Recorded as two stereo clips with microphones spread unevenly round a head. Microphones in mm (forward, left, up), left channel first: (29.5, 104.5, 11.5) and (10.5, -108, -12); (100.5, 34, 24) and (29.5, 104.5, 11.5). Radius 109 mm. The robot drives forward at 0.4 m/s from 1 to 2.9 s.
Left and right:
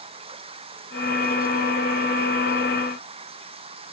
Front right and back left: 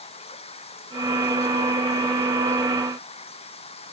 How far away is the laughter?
I don't hear laughter.